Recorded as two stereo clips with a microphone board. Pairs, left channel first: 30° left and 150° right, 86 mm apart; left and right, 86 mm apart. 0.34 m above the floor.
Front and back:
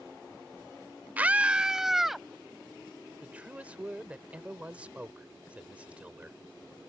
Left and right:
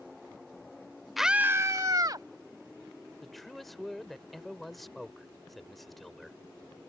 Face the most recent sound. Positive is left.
turn(degrees=175)